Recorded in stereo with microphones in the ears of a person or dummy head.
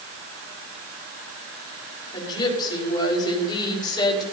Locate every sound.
2.1 s a woman speaking: 30° left (ahead or behind), 5 m